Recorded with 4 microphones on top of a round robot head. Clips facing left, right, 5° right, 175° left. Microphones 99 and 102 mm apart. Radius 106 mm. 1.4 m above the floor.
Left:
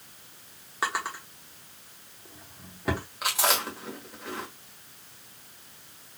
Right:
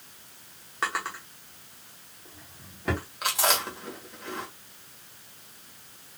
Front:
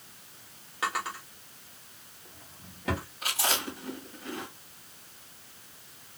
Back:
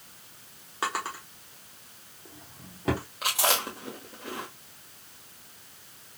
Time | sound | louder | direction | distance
0.8 | a drawer | even, back 1 dB | 170° left | 1.0 m
3.2 | chewing | even, back 5 dB | straight behind | 1.4 m